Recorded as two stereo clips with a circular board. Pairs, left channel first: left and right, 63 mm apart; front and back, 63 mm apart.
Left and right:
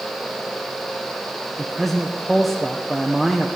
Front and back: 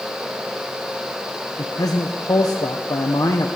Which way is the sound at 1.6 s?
Straight ahead.